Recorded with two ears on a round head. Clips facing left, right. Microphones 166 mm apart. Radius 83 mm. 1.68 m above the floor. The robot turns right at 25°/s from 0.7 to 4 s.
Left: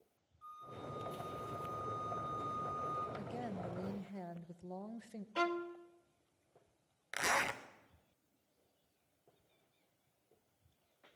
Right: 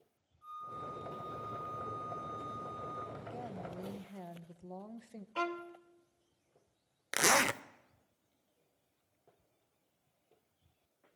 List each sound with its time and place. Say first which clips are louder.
0.4 s a flute: right 2 dB; 15° right, 6.5 m; by 3.1 s 45° left, 6.5 m
3.2 s a woman speaking: left 1 dB; 25° left (ahead or behind), 1.3 m; by 5.2 s 5° left (ahead or behind), 1.3 m
5.3 s a violin: left 2 dB; 10° left (ahead or behind), 1.1 m
7.1 s a zipper: right 7 dB; 60° right (ahead or behind), 0.7 m